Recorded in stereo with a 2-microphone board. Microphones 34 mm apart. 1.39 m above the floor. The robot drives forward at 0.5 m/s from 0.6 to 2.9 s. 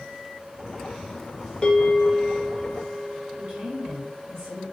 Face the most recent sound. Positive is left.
turn(degrees=-80)